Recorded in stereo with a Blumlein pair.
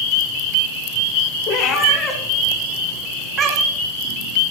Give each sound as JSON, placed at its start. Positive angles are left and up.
{"t": 1.5, "sound": "a cat meowing", "azimuth_deg": 35, "distance_m": 2.5}